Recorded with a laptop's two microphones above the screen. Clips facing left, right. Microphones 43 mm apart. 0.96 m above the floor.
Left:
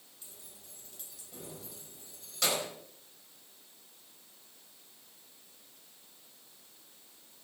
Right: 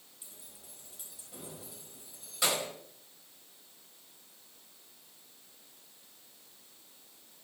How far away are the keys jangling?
About 4 m.